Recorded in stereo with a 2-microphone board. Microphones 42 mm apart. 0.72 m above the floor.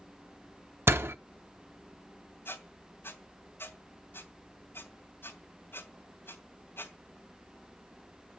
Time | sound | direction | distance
0.9 | a door slam | 70° right (ahead or behind) | 1.0 m
2.5 | a squeak | 60° left (ahead or behind) | 2.5 m